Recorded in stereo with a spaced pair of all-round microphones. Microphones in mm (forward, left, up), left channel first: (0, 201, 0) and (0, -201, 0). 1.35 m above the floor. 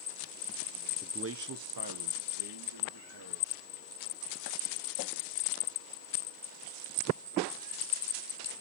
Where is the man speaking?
10° right (ahead or behind), 0.7 m; by 3.6 s 70° right (ahead or behind), 3 m.